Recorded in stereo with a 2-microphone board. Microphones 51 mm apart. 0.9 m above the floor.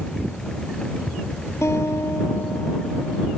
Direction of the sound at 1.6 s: 70° left (ahead or behind).